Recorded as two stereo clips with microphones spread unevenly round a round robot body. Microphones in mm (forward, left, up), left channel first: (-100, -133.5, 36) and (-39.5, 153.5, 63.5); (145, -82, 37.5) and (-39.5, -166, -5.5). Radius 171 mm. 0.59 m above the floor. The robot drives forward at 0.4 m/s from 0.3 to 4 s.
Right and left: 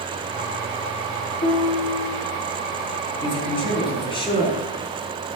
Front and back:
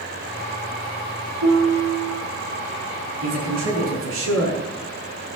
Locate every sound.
1.4 s a piano: 175° right, 5.5 m
3.2 s a man speaking: 175° right, 5.5 m